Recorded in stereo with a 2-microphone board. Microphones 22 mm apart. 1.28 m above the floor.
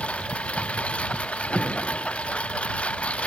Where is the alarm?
75° left (ahead or behind).